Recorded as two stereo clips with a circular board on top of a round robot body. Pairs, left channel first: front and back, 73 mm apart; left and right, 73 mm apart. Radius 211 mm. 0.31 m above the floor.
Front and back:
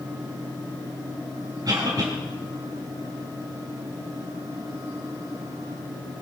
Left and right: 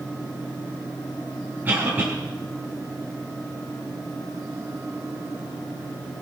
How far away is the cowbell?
I don't hear a cowbell.